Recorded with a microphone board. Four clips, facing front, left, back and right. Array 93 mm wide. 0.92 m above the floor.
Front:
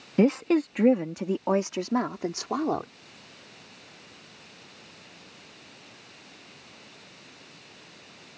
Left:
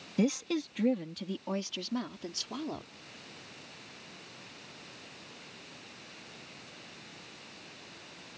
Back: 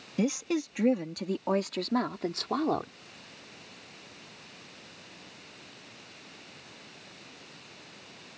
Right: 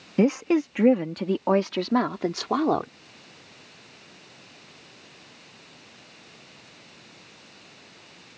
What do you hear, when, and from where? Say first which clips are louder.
0.2 s a woman speaking: right 9 dB, front 7 dB; 45° right; by 2.9 s 80° right